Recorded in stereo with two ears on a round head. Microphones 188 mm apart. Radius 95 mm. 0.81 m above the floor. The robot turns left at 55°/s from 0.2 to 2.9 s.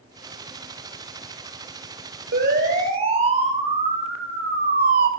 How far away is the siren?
About 4 m.